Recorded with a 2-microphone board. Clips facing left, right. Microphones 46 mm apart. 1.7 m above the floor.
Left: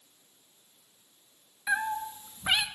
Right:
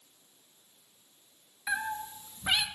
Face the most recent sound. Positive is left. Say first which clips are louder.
# left 4 dB
turn(degrees=20)  # may be behind; listen again after turning